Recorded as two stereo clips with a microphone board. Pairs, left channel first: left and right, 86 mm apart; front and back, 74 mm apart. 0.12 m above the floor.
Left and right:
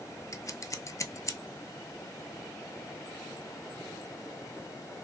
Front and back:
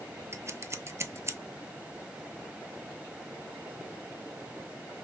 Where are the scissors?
135° left, 0.6 m.